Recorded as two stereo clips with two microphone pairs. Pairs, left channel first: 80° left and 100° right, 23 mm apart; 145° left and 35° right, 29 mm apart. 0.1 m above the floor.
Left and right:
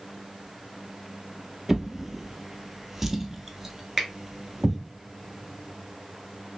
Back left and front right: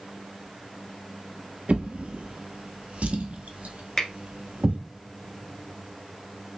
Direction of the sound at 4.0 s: 175° right.